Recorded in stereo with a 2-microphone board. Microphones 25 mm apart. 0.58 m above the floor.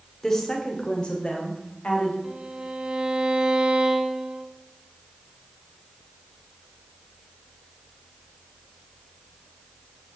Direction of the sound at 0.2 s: 20° left (ahead or behind).